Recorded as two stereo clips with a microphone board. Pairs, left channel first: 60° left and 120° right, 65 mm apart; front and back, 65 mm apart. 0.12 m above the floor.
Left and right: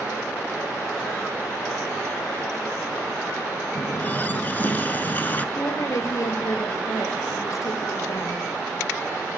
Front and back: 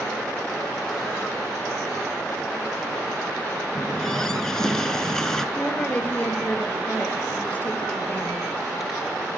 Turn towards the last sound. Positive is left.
turn(degrees=65)